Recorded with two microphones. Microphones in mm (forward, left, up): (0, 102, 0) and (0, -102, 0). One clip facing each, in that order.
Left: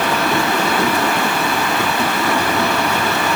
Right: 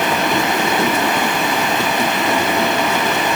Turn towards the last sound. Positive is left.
No sound to turn to.